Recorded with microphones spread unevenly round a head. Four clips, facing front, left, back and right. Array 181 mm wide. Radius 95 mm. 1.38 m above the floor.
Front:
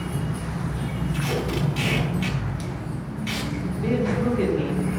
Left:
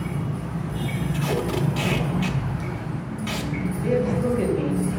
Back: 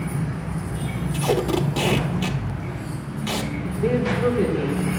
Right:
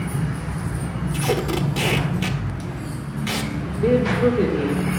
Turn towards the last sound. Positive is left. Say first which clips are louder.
# right 6 dB, back 3 dB
turn(degrees=-110)